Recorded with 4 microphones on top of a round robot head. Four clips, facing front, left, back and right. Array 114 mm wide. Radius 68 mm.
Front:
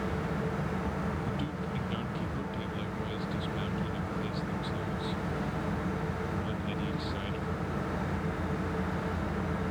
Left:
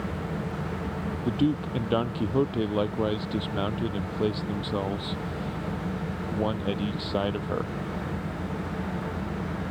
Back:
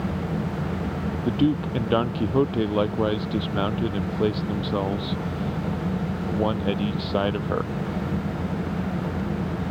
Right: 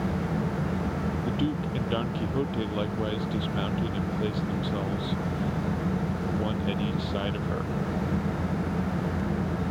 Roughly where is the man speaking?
Behind.